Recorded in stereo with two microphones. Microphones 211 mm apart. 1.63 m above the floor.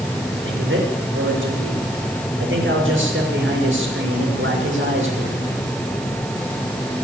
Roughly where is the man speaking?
Right.